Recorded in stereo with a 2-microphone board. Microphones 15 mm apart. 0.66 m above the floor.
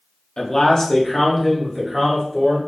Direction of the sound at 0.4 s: 50° left (ahead or behind).